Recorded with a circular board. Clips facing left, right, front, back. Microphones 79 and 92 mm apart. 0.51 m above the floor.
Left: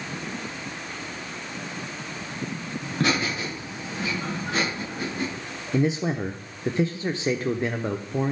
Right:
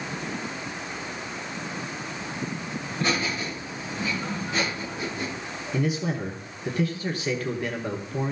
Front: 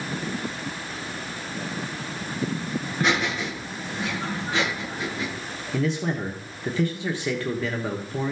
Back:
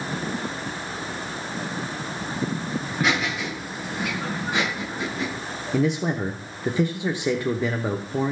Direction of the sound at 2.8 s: 90° left.